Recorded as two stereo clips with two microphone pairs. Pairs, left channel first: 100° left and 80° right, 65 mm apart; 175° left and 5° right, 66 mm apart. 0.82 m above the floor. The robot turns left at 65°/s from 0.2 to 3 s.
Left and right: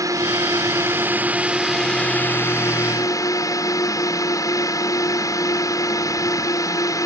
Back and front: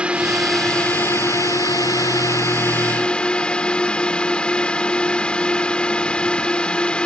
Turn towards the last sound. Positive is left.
turn(degrees=105)